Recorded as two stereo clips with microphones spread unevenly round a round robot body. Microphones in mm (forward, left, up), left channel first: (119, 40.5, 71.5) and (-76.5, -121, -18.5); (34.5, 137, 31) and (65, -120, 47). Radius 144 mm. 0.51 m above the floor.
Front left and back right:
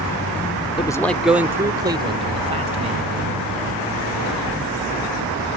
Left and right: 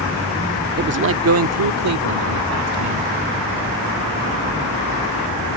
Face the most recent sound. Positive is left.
turn(degrees=-80)